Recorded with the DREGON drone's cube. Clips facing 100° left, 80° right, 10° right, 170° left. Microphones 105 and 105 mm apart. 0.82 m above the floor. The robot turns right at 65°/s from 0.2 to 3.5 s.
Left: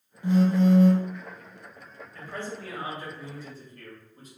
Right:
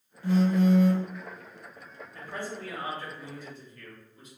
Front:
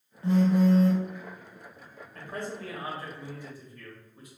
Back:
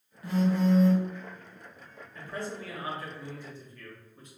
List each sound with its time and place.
0.2 s a phone buzzing: 40° left, 0.7 m; by 1.1 s 90° left, 0.7 m
2.1 s a man speaking: 25° right, 1.1 m; by 4.3 s 65° left, 1.1 m